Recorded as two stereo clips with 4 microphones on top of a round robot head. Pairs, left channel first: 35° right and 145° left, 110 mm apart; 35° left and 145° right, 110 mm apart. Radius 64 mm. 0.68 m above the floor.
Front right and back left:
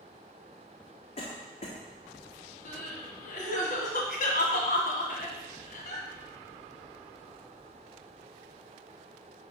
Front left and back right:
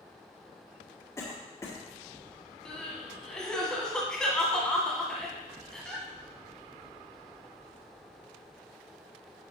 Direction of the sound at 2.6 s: 50° right.